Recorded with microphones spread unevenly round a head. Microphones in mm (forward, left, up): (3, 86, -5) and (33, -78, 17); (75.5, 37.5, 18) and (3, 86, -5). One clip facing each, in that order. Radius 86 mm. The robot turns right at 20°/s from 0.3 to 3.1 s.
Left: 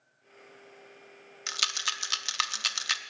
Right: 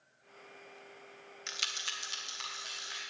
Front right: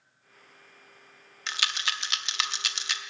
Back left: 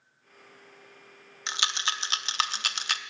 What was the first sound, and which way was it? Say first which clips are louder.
A rattle: left 6 dB, back left 1 dB; 75° left.